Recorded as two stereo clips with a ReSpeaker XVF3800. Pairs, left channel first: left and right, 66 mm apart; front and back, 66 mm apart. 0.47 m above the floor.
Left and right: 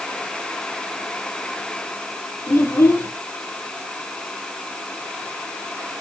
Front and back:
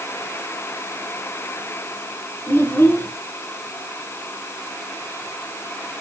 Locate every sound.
2.5 s a child speaking: 55° left, 3.5 m